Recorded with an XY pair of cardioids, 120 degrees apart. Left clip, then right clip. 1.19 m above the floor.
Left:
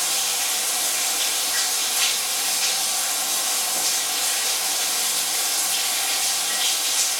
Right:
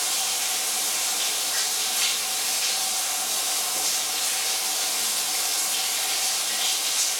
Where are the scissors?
I don't hear scissors.